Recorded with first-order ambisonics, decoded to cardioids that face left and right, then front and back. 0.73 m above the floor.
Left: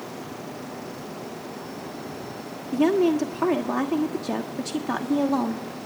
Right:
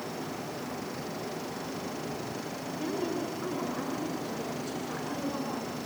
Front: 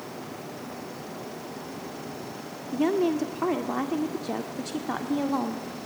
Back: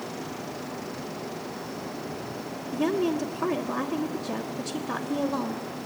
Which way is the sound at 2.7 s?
70° left.